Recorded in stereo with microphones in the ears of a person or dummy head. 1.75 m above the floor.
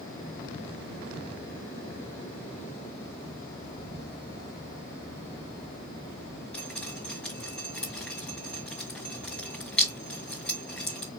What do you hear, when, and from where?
3.7 s a bird: 60° right (ahead or behind), 1.7 m
6.5 s dripping: 5° left (ahead or behind), 2.5 m